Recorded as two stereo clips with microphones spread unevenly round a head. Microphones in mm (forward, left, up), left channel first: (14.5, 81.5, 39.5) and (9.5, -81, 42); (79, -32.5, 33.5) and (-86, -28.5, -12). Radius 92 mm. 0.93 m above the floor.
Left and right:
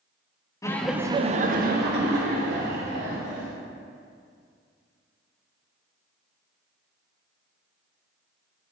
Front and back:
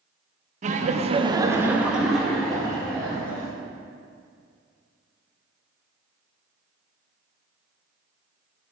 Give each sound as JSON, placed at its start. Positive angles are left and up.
{"t": 0.6, "sound": "laughter", "azimuth_deg": 155, "distance_m": 0.8}